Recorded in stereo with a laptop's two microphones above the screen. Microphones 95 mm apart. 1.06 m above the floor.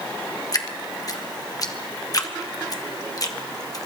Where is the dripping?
40° left (ahead or behind), 1.0 m.